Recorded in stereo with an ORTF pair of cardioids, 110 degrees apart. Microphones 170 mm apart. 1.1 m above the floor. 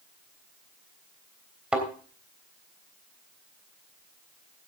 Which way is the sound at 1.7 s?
5° right.